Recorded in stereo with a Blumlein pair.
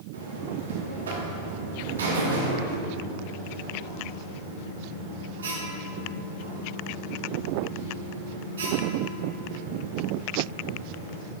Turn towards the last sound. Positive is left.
turn(degrees=-70)